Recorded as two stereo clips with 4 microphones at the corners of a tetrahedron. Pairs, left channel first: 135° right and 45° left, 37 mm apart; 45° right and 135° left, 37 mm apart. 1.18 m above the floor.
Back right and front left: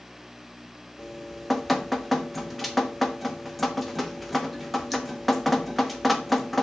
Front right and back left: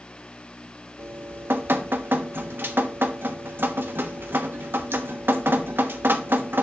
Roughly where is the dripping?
Behind left.